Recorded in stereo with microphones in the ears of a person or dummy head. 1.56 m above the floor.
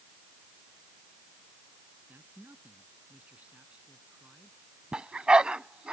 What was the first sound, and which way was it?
A man speaking, 5° right (ahead or behind).